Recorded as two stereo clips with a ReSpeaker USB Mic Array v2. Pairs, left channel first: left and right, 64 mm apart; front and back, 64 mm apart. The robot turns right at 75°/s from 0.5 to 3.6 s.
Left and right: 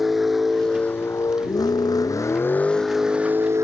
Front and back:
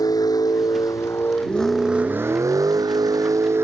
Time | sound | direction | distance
0.0 | a vehicle | straight ahead | ?